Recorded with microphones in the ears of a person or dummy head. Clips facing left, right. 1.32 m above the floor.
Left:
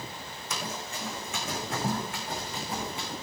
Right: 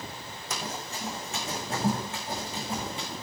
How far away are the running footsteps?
About 3 m.